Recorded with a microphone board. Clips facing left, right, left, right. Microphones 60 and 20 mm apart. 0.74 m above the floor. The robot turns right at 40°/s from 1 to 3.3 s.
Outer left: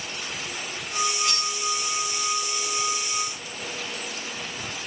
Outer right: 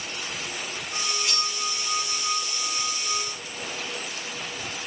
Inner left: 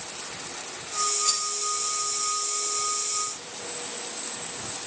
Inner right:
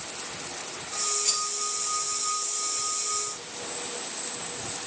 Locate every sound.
1.2 s cutlery clinking: 15° right (ahead or behind), 3 m; by 1.5 s 5° right (ahead or behind), 3 m